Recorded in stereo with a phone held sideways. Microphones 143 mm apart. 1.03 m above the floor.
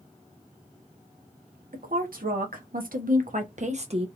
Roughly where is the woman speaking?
Right.